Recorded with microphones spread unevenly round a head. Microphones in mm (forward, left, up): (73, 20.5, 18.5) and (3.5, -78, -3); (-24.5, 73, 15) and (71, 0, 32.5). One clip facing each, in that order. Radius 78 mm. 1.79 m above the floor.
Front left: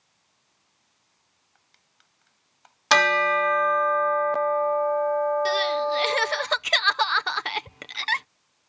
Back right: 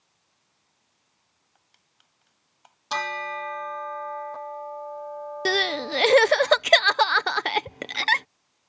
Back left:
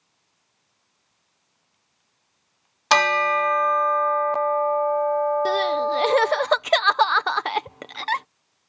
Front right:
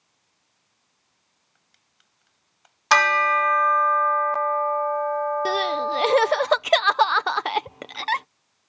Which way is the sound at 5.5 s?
115° right.